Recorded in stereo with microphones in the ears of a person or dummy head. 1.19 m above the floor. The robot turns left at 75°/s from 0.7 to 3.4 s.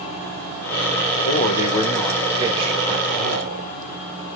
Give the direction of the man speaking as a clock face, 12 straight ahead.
10 o'clock.